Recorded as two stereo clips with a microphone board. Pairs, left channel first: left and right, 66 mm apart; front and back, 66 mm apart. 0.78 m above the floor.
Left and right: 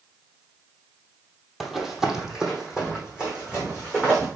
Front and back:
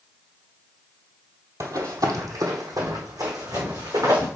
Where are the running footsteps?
175° right, 1.3 m; by 4.3 s 165° right, 3.5 m.